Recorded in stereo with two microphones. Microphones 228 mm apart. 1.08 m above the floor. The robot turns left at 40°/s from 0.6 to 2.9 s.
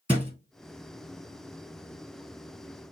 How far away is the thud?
About 1.3 m.